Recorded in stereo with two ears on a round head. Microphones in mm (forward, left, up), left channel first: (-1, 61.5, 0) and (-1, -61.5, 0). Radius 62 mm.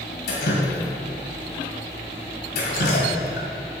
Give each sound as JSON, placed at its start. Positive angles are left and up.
{"t": 0.3, "sound": "dripping", "side_deg": 75, "distance_m": 2.0}